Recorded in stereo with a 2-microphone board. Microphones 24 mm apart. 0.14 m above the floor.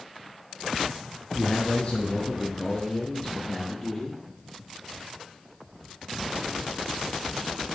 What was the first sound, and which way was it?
A man speaking, 40° left (ahead or behind).